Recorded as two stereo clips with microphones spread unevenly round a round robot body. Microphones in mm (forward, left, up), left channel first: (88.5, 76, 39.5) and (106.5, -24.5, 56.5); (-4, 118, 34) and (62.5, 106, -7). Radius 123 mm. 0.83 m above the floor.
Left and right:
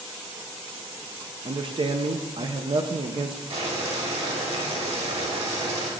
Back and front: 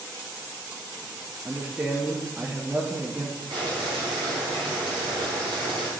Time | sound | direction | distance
1.4 | a man speaking | 45° right | 0.6 m
3.5 | boiling | 60° right | 1.9 m